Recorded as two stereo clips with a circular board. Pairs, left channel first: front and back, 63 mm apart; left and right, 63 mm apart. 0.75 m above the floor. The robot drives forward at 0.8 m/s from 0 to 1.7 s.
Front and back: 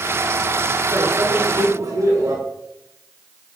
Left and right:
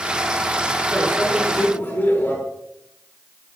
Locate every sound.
0.9 s a microwave: 145° left, 5.5 m; by 2.4 s 150° left, 6 m